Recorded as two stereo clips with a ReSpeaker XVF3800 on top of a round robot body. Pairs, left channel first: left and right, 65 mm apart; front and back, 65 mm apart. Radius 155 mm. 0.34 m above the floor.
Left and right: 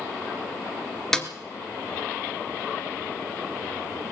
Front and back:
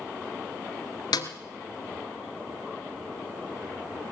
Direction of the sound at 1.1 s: 10° left.